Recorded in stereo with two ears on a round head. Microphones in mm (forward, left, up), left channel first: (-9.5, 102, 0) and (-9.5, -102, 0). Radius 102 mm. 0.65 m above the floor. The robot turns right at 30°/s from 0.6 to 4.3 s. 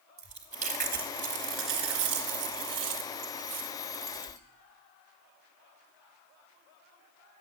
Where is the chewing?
145° right, 2 m; by 4.4 s 35° right, 2 m.